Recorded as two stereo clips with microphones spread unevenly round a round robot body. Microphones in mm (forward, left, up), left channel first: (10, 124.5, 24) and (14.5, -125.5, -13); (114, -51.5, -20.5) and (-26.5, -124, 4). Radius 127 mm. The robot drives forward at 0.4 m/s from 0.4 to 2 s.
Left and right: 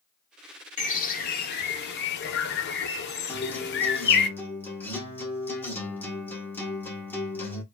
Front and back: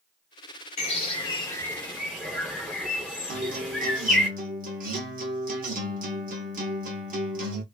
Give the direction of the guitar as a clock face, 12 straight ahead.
6 o'clock.